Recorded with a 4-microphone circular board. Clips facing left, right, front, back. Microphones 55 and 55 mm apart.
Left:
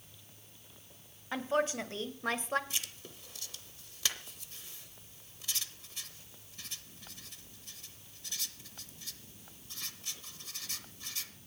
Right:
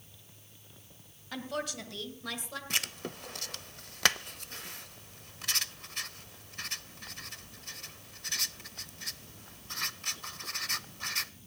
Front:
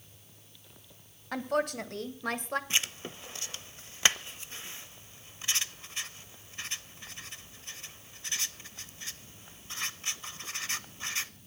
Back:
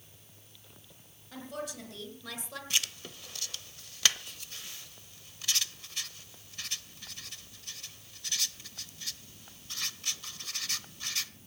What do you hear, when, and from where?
1.3 s a woman speaking: 25° left, 3 m; by 2.6 s 40° left, 2 m
2.7 s writing: 65° right, 0.6 m